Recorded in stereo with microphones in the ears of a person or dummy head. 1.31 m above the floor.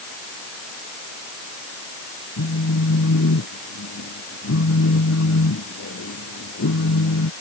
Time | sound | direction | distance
2.4 | a phone buzzing | 70° left (ahead or behind) | ?